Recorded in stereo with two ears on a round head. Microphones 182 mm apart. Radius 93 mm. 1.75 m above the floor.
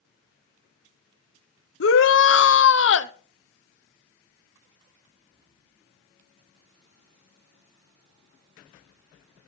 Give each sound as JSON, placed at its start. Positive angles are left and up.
{"t": 1.8, "sound": "a shout", "side_deg": 60, "distance_m": 1.0}